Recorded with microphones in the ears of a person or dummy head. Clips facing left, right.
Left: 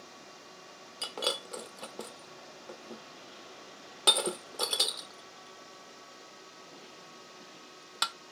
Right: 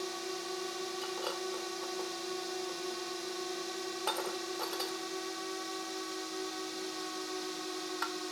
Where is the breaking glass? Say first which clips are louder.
Left 5 dB; 45° left (ahead or behind).